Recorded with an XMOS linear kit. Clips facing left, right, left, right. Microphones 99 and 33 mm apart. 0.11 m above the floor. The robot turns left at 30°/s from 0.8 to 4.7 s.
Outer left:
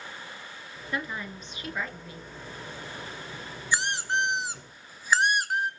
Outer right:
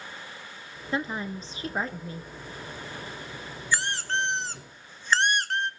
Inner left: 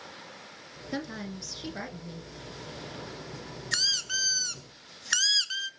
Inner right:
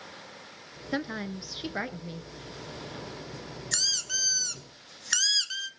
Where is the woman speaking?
50° right, 1.4 m; by 2.3 s 90° right, 1.4 m.